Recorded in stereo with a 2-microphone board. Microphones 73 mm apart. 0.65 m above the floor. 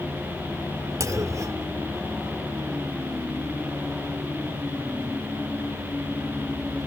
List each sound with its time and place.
1.0 s a clunk: 55° right (ahead or behind)